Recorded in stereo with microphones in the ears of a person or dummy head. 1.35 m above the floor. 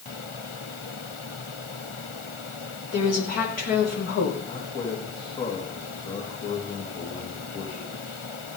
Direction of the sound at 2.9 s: 55° left (ahead or behind).